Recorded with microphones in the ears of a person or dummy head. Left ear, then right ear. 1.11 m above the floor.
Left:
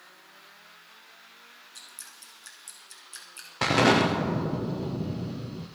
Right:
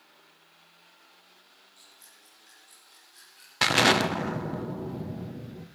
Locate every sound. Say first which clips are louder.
1.8 s dripping: left 9 dB; 65° left (ahead or behind), 4 m
3.6 s an explosion: even; 40° right (ahead or behind), 0.8 m